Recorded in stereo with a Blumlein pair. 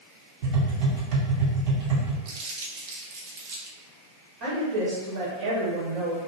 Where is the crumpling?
45° right, 1.0 m.